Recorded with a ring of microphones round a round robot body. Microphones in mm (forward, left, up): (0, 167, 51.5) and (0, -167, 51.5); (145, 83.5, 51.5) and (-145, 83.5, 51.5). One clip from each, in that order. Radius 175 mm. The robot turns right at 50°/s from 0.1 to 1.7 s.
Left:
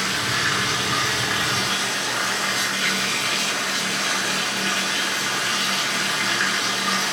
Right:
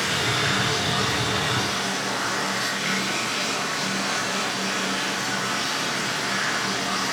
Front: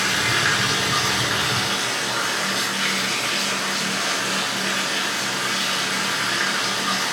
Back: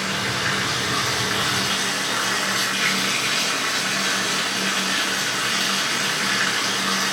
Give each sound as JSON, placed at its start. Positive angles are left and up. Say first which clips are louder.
{"t": 0.0, "sound": "running water", "louder": "left 1 dB, front 4 dB", "azimuth_deg": 25, "distance_m": 6.5}